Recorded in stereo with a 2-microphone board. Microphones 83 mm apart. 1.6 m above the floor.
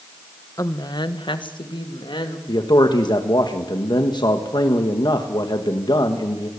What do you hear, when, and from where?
0.6 s a woman speaking: 40° left (ahead or behind), 1.0 m; by 2.4 s 80° left, 2.5 m
2.5 s a man speaking: 65° left (ahead or behind), 1.5 m